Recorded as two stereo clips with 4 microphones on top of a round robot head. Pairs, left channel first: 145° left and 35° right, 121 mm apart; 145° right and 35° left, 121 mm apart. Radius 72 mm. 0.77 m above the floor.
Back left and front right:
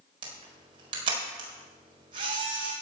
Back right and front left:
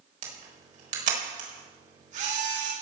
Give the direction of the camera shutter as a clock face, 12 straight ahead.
12 o'clock.